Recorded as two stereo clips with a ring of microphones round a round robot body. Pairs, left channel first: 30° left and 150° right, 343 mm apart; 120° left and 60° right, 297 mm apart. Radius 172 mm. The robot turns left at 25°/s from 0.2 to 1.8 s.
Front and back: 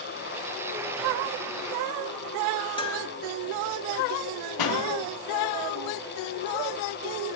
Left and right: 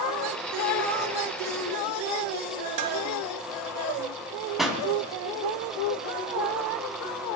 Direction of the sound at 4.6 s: 30° left.